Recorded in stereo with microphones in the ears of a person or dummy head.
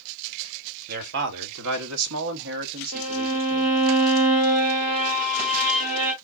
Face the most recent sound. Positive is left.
turn(degrees=-20)  # may be behind; listen again after turning